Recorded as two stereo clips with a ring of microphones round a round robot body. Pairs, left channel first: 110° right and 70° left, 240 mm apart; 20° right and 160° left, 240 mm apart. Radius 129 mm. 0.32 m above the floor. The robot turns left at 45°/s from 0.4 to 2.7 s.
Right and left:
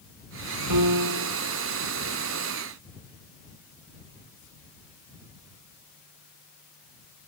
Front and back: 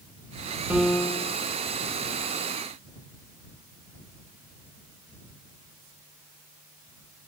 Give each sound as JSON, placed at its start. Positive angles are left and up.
{"t": 0.7, "sound": "a piano", "azimuth_deg": 75}